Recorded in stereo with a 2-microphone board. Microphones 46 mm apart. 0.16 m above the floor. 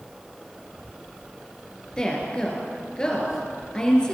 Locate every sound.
2.0 s a woman speaking: 20° left (ahead or behind), 3 m